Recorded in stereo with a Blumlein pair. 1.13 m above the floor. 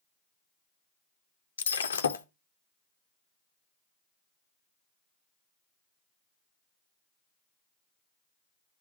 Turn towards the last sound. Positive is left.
turn(degrees=70)